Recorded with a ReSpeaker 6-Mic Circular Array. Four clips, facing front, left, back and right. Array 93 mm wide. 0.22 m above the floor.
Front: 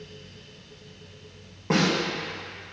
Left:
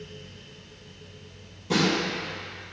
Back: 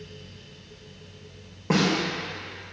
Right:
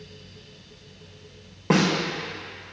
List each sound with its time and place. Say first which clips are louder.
1.7 s a snare drum: right 3 dB, even; 95° right, 5 m